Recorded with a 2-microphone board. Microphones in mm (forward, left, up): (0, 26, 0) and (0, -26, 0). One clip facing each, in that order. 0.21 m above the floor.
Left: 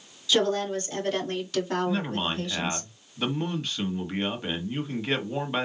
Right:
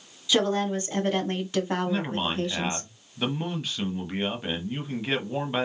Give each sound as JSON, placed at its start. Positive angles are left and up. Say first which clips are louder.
{"t": 0.3, "sound": "a woman speaking", "louder": "even", "side_deg": -15, "distance_m": 2.5}
{"t": 1.9, "sound": "a man speaking", "louder": "even", "side_deg": -5, "distance_m": 1.1}